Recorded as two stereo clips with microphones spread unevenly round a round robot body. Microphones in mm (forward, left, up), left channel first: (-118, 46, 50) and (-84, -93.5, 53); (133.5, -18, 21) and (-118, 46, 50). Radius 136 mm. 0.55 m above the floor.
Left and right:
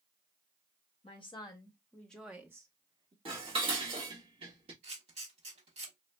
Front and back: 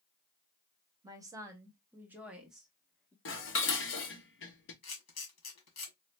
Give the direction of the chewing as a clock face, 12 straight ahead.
No chewing in this recording.